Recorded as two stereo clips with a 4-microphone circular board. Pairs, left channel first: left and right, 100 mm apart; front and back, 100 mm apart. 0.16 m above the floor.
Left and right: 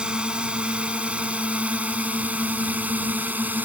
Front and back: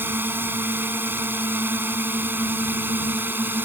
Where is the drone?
155° right; by 3.6 s 140° right.